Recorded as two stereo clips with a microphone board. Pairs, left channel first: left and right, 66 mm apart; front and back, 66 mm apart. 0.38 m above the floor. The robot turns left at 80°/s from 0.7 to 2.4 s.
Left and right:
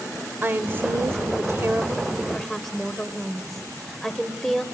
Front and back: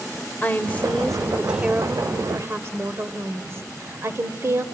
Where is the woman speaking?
50° right, 1.2 m; by 4.6 s 175° left, 1.2 m.